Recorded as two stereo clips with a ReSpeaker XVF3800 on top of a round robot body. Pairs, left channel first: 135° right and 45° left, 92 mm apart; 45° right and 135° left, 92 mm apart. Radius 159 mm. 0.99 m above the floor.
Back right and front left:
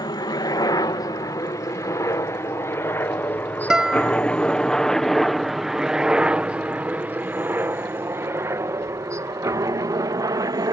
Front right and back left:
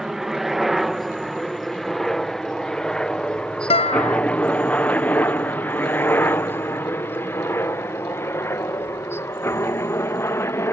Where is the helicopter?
140° right; by 10.7 s 10° left.